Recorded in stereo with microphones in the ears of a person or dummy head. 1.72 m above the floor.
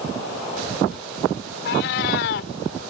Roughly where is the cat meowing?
Left.